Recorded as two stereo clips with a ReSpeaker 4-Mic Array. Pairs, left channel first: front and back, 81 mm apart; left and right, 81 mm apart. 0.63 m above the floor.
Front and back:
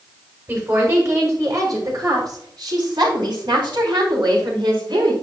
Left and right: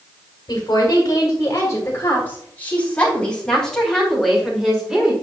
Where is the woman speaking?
120° left, 3 m; by 5.1 s 170° right, 4.5 m.